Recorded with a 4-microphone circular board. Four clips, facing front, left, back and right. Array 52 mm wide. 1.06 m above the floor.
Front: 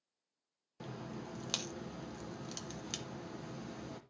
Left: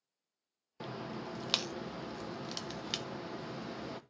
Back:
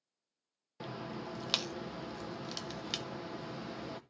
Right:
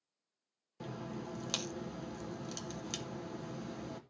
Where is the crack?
130° left, 0.8 m.